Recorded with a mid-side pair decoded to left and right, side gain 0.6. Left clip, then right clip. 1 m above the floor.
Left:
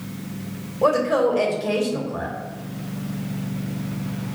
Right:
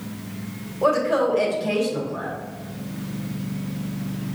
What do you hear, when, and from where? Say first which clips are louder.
0.8 s a woman speaking: left 1 dB; 10° left, 1.7 m